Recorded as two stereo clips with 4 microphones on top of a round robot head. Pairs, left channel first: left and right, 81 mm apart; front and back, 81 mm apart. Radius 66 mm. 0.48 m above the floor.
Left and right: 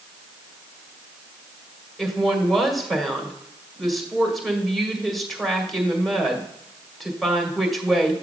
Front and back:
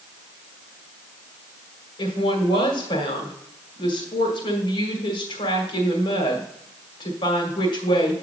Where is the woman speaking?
Straight ahead, 2.0 m.